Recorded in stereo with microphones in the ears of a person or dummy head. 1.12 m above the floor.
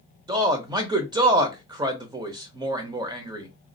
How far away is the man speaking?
About 0.6 m.